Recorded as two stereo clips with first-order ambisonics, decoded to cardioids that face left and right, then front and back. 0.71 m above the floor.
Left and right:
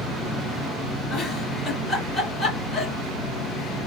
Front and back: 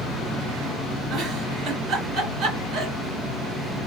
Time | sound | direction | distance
1.1 | a giggle | 155° left | 1.6 m